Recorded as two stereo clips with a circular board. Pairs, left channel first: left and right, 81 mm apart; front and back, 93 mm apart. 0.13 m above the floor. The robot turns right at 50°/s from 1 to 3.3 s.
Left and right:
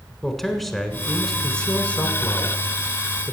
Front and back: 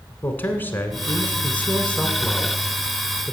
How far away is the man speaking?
About 1.2 m.